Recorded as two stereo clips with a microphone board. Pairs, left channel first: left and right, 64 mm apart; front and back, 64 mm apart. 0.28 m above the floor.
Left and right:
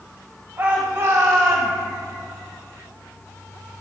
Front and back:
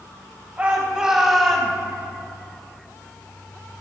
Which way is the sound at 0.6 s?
125° right.